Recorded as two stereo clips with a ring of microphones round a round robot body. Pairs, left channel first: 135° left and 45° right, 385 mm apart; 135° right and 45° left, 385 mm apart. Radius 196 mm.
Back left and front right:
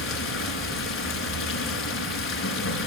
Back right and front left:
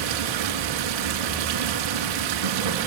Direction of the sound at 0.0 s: 75° left.